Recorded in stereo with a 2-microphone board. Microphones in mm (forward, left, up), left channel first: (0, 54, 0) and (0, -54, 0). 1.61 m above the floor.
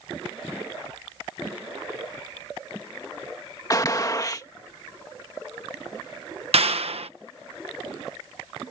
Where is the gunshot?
35° left (ahead or behind).